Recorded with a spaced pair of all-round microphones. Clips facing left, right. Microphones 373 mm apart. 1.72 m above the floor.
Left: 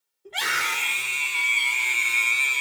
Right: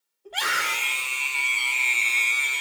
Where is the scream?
35° left (ahead or behind), 1.4 m; by 2.6 s 15° left (ahead or behind), 0.6 m.